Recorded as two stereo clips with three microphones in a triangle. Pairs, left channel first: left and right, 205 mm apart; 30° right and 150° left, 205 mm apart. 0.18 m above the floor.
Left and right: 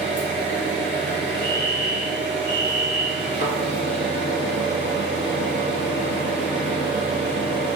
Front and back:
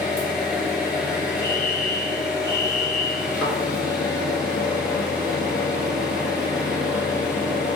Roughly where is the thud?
Ahead left.